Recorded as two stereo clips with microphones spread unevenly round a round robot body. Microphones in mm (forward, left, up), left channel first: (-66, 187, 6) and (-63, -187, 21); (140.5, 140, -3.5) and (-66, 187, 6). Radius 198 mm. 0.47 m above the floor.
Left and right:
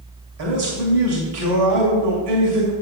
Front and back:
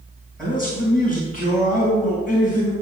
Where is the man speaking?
100° right, 2.5 m.